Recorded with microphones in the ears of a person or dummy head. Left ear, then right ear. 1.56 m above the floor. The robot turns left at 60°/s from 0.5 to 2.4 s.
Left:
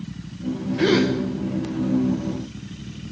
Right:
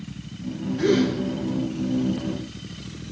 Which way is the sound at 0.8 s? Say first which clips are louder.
Left 2 dB; 20° left (ahead or behind).